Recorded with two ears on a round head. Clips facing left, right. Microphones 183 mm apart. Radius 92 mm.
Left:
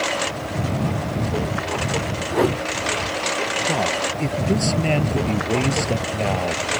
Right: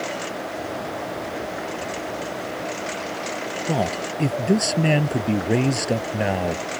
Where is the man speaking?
10° right (ahead or behind).